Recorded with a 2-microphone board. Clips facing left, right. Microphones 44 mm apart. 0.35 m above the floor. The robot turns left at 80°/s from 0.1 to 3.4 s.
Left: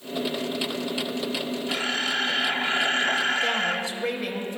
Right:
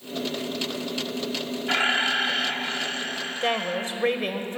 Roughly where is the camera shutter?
Behind right.